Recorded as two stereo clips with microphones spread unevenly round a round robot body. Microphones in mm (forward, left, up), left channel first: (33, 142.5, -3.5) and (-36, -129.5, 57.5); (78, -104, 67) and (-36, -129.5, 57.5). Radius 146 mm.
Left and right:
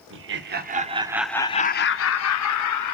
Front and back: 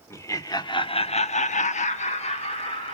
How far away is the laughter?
About 2.0 m.